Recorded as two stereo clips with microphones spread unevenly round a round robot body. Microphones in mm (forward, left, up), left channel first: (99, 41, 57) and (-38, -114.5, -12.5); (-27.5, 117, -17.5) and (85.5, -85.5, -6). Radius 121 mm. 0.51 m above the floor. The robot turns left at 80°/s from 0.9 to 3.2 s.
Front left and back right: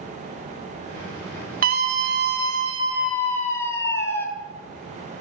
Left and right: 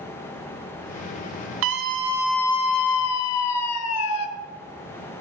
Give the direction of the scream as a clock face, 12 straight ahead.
3 o'clock.